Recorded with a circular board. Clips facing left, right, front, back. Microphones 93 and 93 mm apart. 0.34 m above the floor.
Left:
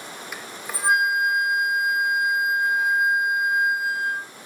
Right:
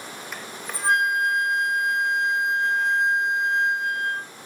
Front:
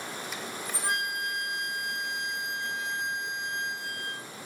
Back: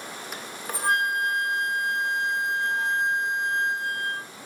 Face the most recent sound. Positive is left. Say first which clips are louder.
# even, back 1 dB
turn(degrees=170)